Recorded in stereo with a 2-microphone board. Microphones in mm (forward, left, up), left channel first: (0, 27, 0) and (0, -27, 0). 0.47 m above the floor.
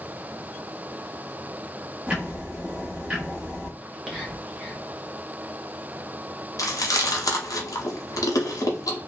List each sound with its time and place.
2.1 s ticking: 20° right (ahead or behind), 0.8 m
3.8 s whispering: 5° left (ahead or behind), 0.7 m
6.6 s chewing: 80° left, 0.8 m